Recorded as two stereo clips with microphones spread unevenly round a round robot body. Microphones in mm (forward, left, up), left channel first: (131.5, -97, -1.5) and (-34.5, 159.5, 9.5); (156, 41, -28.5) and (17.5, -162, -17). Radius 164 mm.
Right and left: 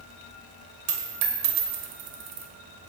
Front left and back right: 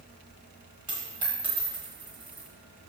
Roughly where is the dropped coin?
Behind.